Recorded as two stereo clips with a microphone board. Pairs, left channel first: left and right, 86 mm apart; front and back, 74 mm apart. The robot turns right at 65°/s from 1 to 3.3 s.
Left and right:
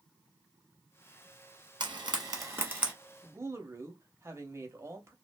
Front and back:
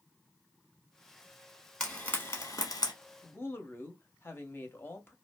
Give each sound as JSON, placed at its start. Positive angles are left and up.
{"t": 1.8, "sound": "frying", "azimuth_deg": -80, "distance_m": 1.0}
{"t": 3.2, "sound": "a woman speaking", "azimuth_deg": -50, "distance_m": 0.7}